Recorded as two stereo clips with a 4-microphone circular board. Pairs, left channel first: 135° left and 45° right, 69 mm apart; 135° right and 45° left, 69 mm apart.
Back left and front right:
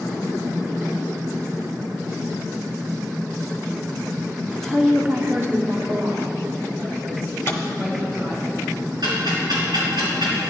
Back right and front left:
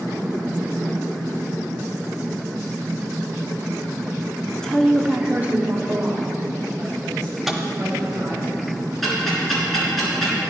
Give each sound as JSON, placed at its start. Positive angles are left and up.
{"t": 4.5, "sound": "a woman speaking", "azimuth_deg": -175, "distance_m": 0.7}
{"t": 7.5, "sound": "a microwave", "azimuth_deg": 135, "distance_m": 1.1}
{"t": 9.0, "sound": "ticking", "azimuth_deg": -45, "distance_m": 3.5}